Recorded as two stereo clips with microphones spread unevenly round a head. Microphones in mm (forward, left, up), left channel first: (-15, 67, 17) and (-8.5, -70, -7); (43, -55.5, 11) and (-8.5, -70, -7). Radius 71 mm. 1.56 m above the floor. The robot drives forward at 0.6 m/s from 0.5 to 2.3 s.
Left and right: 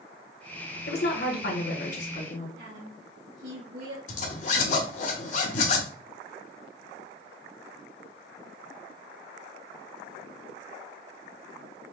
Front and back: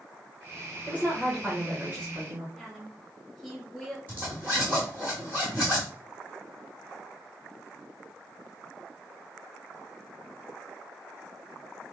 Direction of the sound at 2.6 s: 75° right.